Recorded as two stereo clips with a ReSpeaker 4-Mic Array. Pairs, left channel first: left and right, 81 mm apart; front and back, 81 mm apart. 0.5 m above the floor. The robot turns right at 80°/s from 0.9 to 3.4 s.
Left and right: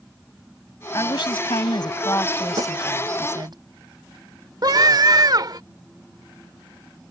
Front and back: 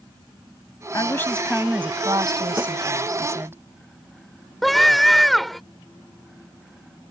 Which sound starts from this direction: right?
A scream, at 4.6 s.